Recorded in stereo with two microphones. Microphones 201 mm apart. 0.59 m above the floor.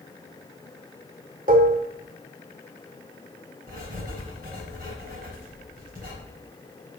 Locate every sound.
1.5 s dishes clattering: 45° right (ahead or behind), 1.2 m
3.7 s writing: 45° right (ahead or behind), 4 m